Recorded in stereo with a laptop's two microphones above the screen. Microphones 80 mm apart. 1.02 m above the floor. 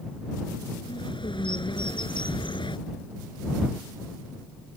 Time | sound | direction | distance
0.8 | a bird | 80° left | ?